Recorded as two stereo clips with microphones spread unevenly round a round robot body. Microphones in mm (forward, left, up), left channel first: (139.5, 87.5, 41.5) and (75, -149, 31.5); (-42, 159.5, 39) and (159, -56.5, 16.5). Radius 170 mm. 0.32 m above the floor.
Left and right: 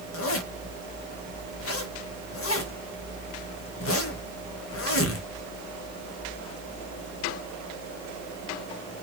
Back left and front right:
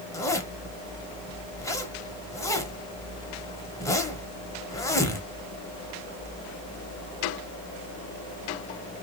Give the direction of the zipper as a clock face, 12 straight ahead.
10 o'clock.